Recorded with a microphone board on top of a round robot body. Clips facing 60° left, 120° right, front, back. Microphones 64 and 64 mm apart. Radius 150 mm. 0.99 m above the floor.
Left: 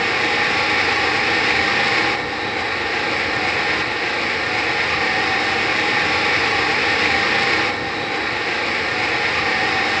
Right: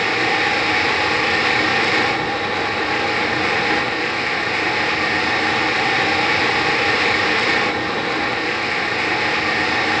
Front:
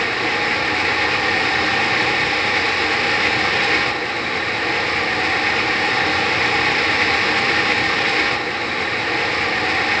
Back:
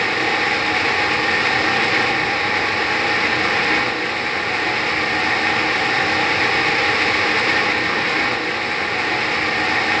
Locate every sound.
Only background noise.